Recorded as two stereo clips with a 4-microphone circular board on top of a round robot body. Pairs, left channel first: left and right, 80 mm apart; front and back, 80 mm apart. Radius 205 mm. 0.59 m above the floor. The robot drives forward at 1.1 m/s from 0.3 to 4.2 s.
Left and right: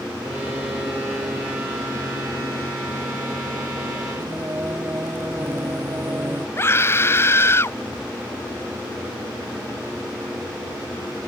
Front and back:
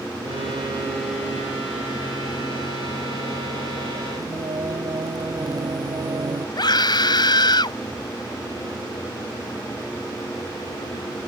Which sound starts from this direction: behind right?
Singing, at 4.2 s.